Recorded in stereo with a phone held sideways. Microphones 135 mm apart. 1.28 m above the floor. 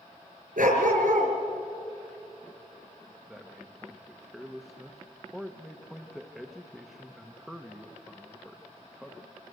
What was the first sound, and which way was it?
A dog barking, 75° right (ahead or behind).